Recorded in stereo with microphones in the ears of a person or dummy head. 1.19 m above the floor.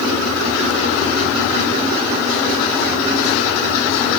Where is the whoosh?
No whoosh in this recording.